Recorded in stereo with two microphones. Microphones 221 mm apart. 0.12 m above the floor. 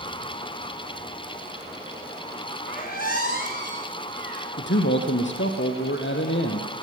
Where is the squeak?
40° left (ahead or behind), 8.5 m.